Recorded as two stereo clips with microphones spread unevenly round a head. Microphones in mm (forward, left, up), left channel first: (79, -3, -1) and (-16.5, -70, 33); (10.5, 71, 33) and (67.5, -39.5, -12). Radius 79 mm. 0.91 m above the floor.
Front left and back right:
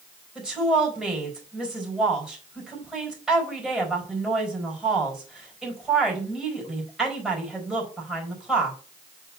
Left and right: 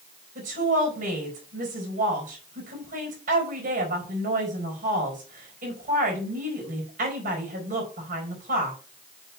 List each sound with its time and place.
0.3 s a woman speaking: 60° right, 4.5 m